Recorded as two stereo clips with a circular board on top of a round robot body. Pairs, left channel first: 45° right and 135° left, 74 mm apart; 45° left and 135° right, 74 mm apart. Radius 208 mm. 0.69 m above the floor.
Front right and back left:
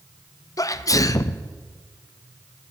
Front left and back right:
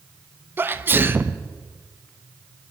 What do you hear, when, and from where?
0.6 s a sneeze: 80° right, 0.8 m